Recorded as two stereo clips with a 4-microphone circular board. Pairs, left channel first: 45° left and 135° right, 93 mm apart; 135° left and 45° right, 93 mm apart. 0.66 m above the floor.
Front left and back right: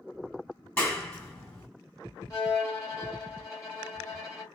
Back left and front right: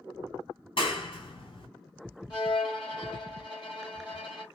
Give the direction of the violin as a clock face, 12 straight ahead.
9 o'clock.